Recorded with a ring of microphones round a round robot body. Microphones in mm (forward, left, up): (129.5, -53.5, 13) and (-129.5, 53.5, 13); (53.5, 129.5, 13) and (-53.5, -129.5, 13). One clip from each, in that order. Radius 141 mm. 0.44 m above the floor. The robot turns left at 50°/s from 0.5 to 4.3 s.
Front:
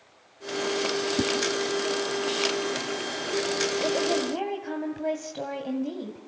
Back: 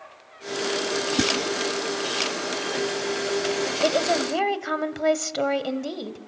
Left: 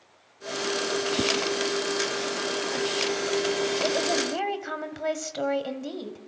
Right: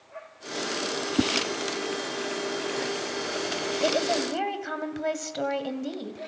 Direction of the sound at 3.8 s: 170° left.